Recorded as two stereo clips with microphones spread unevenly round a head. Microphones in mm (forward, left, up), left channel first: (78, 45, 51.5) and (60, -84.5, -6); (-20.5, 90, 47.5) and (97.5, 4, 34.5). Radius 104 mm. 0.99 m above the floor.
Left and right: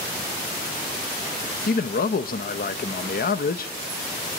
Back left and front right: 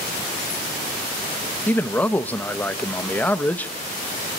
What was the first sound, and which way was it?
A man speaking, 65° left.